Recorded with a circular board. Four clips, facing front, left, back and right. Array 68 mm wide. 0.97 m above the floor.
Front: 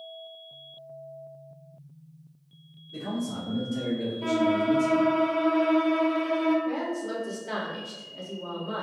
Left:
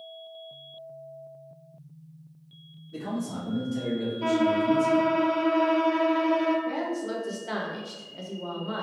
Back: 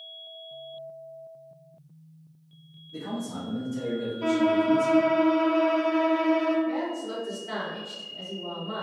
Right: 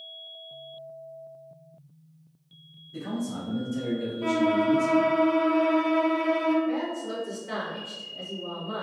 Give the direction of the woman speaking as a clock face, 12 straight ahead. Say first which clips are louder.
Even, even; 10 o'clock.